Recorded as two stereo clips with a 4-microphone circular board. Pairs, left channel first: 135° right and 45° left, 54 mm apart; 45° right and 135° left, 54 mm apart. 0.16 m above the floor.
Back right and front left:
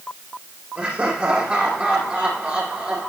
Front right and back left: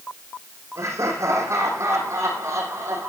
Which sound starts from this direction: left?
Laughter, at 0.8 s.